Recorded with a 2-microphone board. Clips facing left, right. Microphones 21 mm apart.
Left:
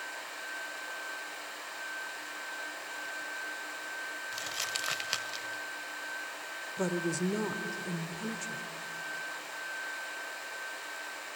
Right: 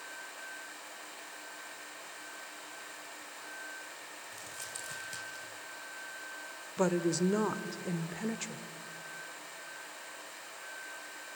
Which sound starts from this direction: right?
A woman speaking, at 6.8 s.